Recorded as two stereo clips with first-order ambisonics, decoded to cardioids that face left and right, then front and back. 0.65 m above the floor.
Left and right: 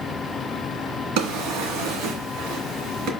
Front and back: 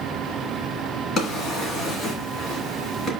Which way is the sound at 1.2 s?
65° right.